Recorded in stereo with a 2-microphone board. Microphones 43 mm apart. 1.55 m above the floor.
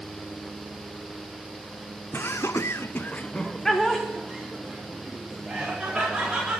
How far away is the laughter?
About 1.1 m.